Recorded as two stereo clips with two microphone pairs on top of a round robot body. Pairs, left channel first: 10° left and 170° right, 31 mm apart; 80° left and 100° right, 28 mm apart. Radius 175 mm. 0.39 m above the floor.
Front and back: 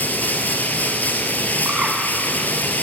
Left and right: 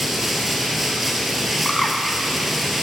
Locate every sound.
0.0 s running water: 20° right, 1.5 m
1.6 s a bird: 160° left, 4.5 m